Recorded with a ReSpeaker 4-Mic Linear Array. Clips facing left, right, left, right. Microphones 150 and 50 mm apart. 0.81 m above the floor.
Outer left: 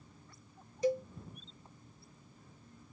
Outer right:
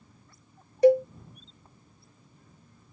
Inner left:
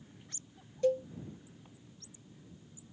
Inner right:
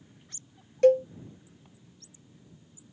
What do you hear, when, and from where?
0.8 s a cowbell: 65° right (ahead or behind)